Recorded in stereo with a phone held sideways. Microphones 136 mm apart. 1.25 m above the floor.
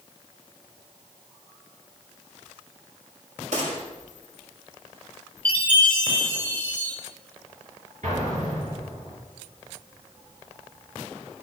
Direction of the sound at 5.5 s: 15° left (ahead or behind).